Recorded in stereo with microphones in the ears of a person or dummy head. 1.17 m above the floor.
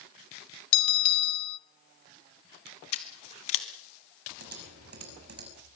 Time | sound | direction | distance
0.7 | a bell | 30° left (ahead or behind) | 1.0 m
2.9 | scissors | 40° left (ahead or behind) | 2 m
4.4 | typing on a keyboard | 50° right (ahead or behind) | 6 m